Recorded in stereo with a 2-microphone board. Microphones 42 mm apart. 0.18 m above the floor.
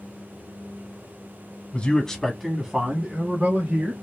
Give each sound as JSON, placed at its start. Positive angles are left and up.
{"t": 1.7, "sound": "a man speaking", "side_deg": 30, "distance_m": 1.1}